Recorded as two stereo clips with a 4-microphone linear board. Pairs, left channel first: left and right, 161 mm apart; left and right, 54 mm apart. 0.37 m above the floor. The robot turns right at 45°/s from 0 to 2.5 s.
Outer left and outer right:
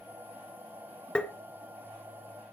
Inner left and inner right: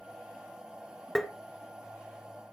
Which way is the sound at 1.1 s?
5° left (ahead or behind).